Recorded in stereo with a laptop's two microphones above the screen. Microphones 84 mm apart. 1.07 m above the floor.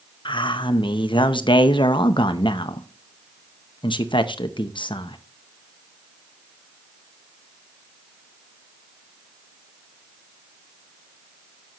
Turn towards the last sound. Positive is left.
turn(degrees=75)  # may be behind; listen again after turning